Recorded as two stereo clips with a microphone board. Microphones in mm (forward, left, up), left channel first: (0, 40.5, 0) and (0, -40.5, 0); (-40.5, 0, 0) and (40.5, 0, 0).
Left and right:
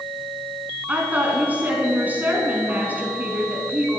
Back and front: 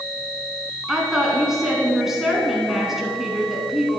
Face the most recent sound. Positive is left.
turn(degrees=-75)